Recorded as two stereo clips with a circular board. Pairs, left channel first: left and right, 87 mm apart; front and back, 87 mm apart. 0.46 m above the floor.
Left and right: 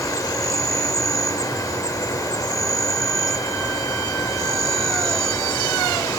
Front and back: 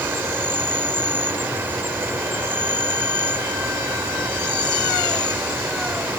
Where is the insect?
120° left.